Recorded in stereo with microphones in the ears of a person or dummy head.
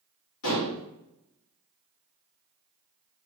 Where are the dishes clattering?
65° left (ahead or behind), 1.3 m.